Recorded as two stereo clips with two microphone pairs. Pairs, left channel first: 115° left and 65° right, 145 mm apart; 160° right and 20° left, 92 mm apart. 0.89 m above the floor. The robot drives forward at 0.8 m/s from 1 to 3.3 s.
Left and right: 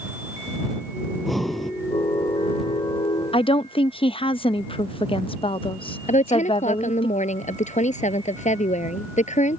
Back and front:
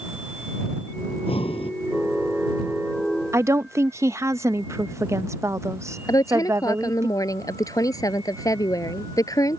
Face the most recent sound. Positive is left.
turn(degrees=150)